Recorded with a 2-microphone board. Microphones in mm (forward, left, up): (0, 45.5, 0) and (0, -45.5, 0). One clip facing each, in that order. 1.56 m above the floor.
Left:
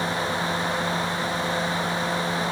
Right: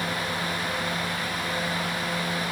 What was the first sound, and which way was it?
Only background noise.